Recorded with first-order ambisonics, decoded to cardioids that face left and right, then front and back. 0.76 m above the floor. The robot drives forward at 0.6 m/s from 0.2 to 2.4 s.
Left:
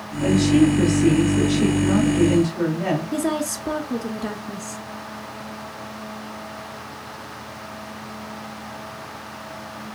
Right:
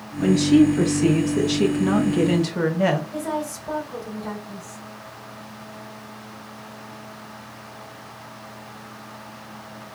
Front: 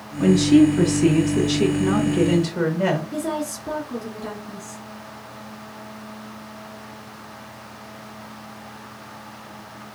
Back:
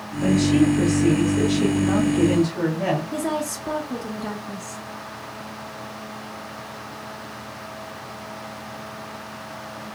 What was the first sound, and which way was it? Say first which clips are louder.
A woman speaking: right 1 dB, front 4 dB; 30° right.